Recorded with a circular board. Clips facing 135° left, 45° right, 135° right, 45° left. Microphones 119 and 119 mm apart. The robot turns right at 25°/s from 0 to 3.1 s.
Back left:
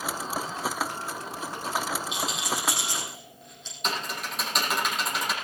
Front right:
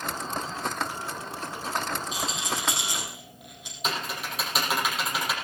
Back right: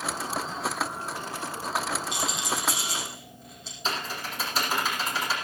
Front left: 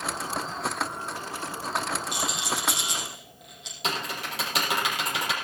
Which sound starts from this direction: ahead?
A rattle, at 2.1 s.